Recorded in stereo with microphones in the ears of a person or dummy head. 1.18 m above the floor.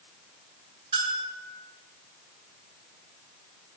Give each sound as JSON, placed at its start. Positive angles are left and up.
{"t": 0.9, "sound": "a bell", "side_deg": -30, "distance_m": 1.1}